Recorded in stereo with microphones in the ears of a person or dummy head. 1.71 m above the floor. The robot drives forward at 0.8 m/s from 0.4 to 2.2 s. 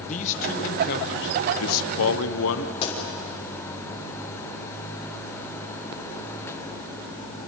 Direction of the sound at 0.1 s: 40° left (ahead or behind).